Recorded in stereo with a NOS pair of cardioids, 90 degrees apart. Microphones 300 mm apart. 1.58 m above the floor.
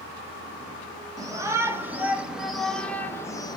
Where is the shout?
10° right, 2.5 m; by 3.6 s 15° left, 1.5 m.